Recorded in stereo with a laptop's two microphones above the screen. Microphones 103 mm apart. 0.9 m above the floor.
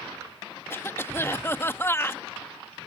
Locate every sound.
0.7 s a cough: 25° left (ahead or behind)